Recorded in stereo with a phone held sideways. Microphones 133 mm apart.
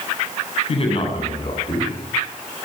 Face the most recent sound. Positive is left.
turn(degrees=40)  # may be behind; listen again after turning